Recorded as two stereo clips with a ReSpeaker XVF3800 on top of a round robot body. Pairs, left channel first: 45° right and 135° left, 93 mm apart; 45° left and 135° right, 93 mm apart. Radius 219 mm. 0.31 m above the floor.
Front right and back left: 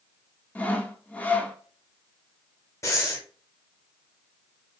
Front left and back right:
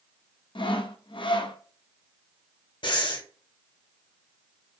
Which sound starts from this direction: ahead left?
Sawing, at 0.6 s.